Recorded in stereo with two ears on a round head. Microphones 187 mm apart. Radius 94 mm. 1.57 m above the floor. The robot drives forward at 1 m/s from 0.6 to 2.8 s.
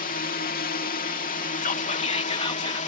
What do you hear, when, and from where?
0.0 s a drone: 45° left (ahead or behind); by 2.9 s 35° left (ahead or behind)
1.6 s whispering: 40° left (ahead or behind); by 2.8 s 25° left (ahead or behind)